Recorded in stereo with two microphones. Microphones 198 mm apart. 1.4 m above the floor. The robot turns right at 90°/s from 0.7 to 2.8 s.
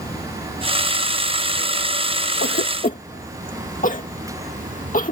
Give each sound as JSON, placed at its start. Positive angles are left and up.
{"t": 0.0, "sound": "running water", "azimuth_deg": 130}
{"t": 2.4, "sound": "a cough", "side_deg": 80}